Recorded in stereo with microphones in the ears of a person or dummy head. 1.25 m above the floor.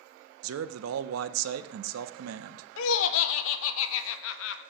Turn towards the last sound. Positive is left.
turn(degrees=70)  # may be behind; listen again after turning